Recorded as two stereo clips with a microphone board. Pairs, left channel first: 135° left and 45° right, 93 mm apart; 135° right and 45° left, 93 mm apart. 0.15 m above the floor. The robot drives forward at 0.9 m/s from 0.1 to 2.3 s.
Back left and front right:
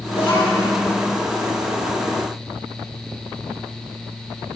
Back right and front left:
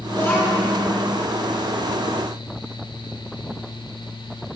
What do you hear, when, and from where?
0.1 s a child speaking: 155° left, 3 m; by 0.7 s 160° left, 3.5 m